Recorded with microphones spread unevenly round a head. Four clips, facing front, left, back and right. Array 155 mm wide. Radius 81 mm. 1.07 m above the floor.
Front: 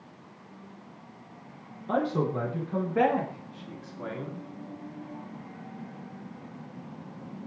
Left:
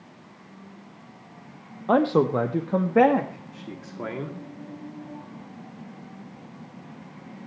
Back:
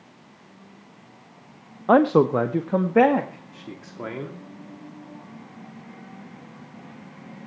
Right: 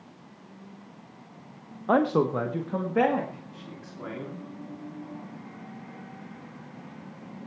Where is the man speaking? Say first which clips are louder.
Left 3 dB, back 11 dB; 175° left, 0.9 m; by 4.4 s 140° left, 2.5 m.